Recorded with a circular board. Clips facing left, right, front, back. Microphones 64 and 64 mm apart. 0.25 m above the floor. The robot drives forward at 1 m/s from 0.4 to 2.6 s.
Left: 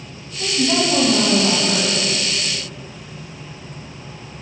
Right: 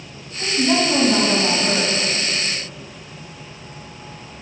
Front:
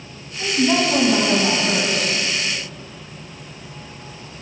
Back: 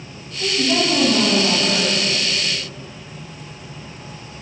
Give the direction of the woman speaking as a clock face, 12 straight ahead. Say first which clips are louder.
Right 1 dB, front 1 dB; 1 o'clock.